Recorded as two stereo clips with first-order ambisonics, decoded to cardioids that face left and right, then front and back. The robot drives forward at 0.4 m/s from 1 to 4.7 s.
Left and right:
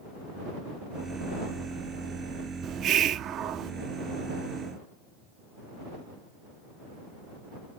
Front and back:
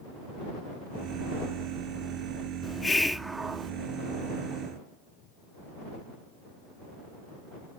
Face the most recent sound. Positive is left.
turn(degrees=-150)